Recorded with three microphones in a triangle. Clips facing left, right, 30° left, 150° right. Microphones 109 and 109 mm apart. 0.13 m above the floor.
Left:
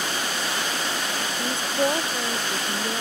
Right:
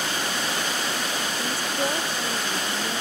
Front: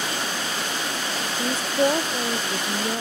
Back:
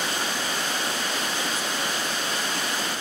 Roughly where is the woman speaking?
Ahead left.